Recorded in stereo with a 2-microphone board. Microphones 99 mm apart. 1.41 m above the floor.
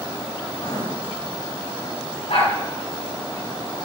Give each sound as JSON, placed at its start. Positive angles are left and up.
{"t": 0.5, "sound": "writing", "side_deg": 65, "distance_m": 3.5}
{"t": 2.3, "sound": "a dog barking", "side_deg": 80, "distance_m": 4.5}